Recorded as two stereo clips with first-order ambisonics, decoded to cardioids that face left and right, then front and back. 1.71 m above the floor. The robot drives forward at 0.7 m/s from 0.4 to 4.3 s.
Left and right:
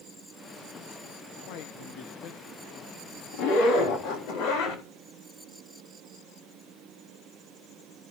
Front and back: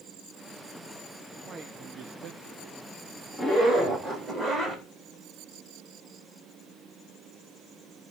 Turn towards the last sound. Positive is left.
turn(degrees=115)